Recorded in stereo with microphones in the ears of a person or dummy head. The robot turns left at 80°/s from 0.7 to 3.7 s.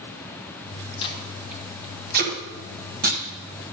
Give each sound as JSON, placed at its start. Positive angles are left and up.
{"t": 1.0, "sound": "tape being pulled", "side_deg": 35, "distance_m": 1.3}